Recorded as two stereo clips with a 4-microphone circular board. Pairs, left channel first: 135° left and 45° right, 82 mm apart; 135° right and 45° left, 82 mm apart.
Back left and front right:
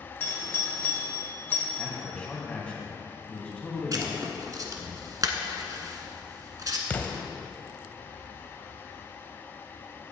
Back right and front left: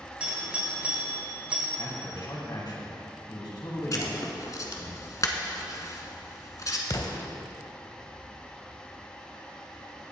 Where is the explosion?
160° right, 0.8 m.